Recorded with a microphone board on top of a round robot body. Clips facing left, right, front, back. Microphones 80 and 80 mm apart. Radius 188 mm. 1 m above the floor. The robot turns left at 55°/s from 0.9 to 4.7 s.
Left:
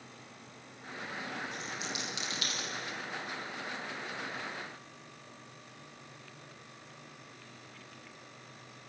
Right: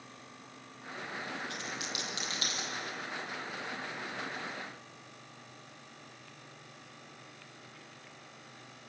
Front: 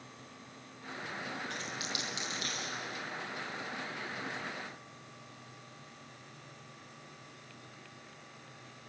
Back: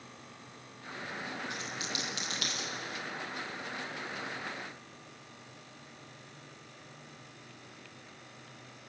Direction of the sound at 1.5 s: 100° right.